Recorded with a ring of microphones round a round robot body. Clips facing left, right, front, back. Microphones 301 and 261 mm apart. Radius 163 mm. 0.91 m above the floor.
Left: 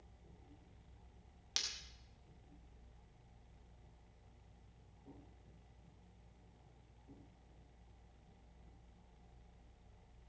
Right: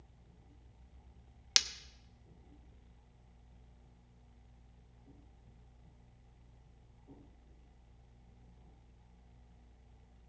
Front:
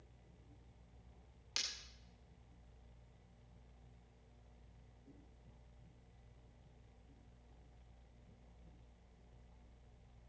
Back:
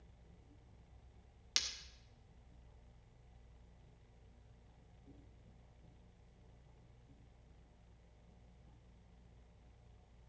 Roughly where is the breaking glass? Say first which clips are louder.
Right 6 dB, back 1 dB; right.